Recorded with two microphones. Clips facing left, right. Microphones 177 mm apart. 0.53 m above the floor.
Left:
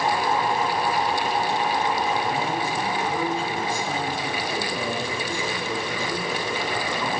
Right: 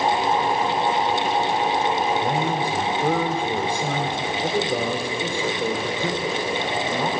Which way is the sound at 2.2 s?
55° right (ahead or behind).